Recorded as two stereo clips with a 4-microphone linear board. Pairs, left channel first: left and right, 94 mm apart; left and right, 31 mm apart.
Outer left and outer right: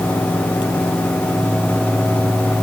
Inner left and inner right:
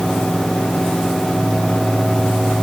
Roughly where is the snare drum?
No snare drum in this recording.